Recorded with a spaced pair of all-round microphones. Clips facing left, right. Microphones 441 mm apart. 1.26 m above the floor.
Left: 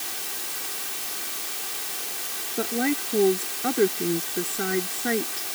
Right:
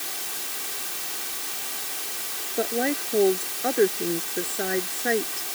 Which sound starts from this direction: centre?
A woman speaking, at 2.6 s.